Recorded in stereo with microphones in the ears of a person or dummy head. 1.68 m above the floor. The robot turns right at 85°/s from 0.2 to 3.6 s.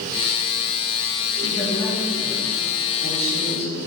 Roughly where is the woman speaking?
Behind.